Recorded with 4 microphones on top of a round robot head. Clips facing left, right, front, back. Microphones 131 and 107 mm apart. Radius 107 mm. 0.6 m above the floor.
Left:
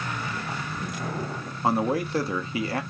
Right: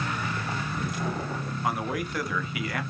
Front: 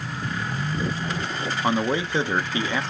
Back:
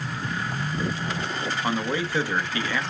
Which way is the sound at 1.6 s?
55° left.